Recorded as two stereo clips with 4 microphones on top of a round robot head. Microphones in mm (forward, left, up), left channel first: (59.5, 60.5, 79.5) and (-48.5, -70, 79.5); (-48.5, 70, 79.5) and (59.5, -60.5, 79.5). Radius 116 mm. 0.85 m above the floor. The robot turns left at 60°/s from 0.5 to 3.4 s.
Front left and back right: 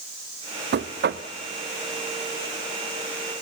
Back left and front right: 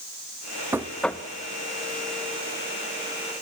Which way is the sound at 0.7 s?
125° right.